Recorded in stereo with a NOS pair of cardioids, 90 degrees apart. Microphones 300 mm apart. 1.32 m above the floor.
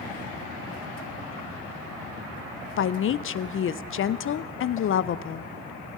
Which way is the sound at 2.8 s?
45° left.